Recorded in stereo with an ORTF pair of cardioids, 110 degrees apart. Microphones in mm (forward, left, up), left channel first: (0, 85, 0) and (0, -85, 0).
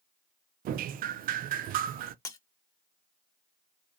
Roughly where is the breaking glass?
Ahead.